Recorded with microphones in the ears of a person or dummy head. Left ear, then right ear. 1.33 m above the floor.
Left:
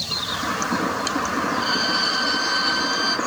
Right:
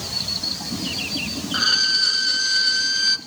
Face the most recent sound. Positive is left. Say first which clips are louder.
# right 6 dB
turn(degrees=-20)  # may be behind; listen again after turning